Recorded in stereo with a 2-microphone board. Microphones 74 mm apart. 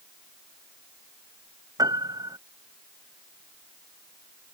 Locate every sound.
1.8 s a piano: 60° right (ahead or behind)